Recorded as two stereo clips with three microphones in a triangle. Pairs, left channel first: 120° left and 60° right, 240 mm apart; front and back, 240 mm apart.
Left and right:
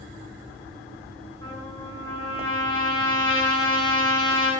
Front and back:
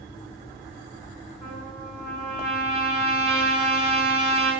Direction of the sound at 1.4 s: 95° left.